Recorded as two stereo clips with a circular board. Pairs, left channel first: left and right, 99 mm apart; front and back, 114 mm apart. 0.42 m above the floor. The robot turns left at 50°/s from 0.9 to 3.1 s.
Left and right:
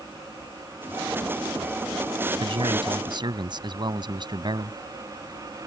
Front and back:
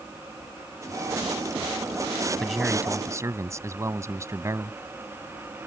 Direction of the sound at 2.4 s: 85° right.